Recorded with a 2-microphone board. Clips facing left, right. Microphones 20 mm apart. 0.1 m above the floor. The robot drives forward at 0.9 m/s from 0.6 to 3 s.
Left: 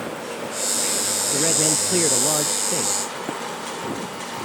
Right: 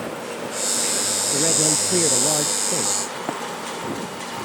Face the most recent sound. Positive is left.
turn(degrees=-30)  # may be behind; listen again after turning